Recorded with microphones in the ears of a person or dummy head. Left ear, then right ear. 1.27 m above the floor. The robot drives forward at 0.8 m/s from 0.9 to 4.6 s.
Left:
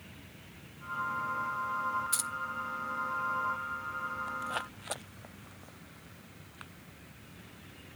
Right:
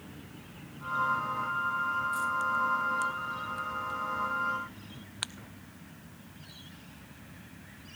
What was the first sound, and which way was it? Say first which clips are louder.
Keys jangling: right 6 dB; 60° left (ahead or behind).